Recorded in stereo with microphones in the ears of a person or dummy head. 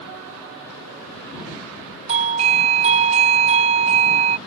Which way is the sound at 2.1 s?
25° right (ahead or behind).